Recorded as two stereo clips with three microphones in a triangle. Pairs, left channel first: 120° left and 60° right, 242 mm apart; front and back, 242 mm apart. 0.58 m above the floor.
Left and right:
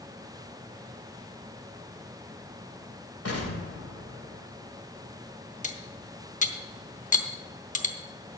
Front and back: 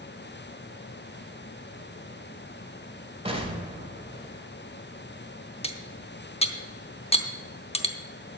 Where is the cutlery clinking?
65° left, 0.9 m.